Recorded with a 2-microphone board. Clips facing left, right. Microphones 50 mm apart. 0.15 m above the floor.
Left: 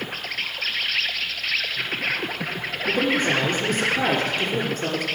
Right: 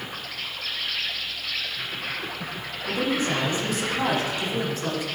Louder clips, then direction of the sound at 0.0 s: Left 5 dB; 60° left (ahead or behind).